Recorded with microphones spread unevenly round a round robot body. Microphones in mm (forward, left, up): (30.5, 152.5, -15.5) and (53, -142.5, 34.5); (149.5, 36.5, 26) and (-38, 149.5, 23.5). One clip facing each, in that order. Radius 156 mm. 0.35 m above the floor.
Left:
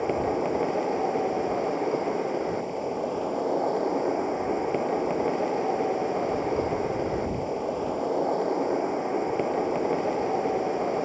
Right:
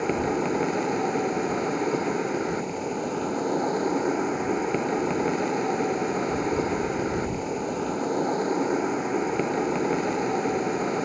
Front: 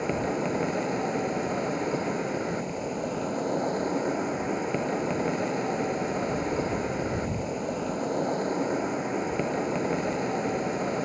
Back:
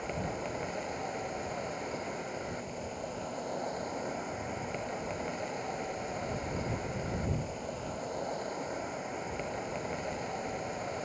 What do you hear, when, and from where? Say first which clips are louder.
0.0 s an insect: right 1 dB, front 10 dB; 20° right